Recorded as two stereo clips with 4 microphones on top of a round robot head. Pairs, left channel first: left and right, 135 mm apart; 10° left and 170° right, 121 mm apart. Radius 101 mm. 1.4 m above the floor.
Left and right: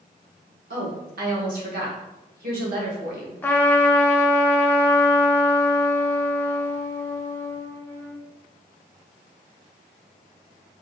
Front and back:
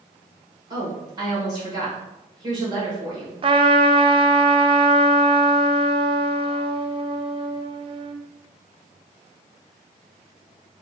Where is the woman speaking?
105° right, 1.4 m.